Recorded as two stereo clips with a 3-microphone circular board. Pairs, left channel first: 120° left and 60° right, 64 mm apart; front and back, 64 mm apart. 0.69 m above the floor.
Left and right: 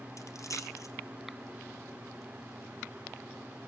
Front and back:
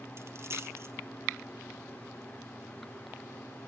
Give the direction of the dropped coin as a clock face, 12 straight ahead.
7 o'clock.